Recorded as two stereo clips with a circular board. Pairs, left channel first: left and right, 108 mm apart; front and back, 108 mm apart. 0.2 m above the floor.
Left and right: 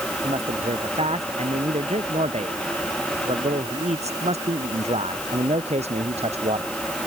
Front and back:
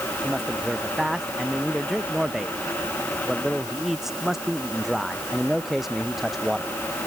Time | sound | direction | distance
0.2 | a man speaking | 95° right | ?